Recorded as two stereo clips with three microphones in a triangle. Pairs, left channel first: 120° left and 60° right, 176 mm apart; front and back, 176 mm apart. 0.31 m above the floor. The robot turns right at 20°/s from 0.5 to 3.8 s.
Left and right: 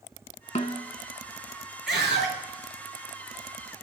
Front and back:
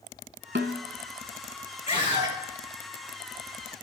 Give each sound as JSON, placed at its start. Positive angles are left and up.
{"t": 0.6, "sound": "a snare drum", "azimuth_deg": 170, "distance_m": 0.5}
{"t": 1.9, "sound": "a scream", "azimuth_deg": -55, "distance_m": 4.5}